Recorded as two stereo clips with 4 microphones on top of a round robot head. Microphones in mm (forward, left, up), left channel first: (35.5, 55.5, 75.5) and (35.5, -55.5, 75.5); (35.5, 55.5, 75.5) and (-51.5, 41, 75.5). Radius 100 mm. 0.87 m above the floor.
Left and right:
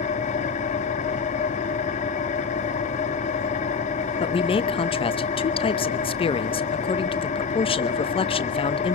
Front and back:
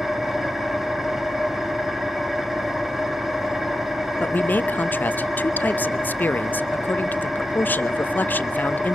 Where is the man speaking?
75° left, 1.0 m.